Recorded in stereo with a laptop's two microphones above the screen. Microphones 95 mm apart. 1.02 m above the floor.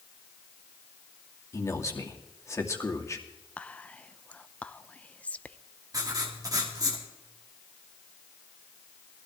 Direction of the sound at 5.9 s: 40° right (ahead or behind).